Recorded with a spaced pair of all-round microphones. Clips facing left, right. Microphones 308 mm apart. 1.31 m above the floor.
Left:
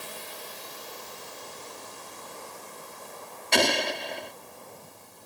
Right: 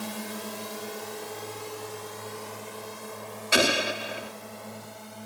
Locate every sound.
0.0 s a drone: 75° right (ahead or behind); by 5.3 s 80° right
3.5 s an explosion: 5° right (ahead or behind)